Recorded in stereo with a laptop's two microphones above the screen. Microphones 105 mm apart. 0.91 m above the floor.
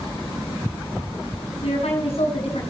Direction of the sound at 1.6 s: 85° left.